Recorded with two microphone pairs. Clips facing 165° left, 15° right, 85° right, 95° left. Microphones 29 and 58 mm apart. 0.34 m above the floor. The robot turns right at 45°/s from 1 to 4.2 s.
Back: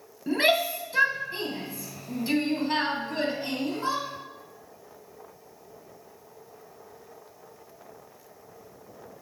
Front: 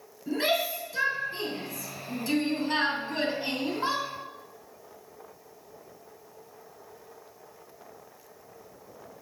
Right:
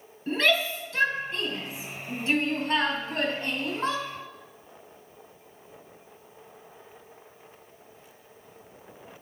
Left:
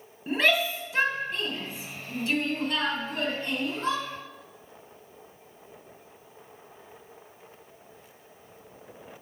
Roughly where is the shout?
Behind.